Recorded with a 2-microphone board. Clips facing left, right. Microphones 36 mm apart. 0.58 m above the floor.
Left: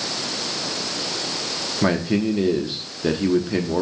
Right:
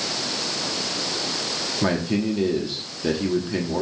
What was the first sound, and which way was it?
A man speaking, 15° left (ahead or behind).